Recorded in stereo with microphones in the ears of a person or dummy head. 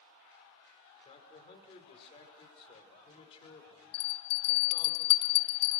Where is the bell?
80° left, 1.1 m.